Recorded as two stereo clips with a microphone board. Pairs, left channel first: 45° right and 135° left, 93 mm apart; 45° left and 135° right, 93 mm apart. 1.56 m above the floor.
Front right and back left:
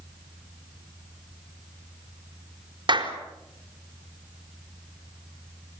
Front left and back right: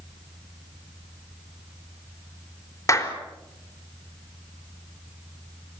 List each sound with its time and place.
2.9 s a clap: 105° left, 4 m